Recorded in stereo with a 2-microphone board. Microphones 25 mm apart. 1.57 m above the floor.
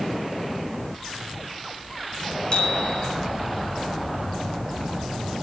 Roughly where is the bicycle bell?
Left.